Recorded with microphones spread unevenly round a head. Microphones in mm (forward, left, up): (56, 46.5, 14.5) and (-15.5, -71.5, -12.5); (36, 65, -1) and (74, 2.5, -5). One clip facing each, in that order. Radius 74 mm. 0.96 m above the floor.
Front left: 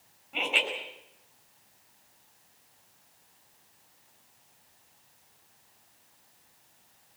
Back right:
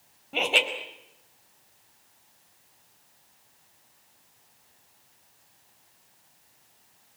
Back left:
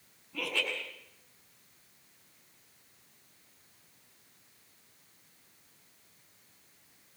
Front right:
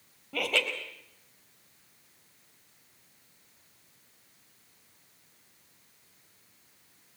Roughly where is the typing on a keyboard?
I don't hear typing on a keyboard.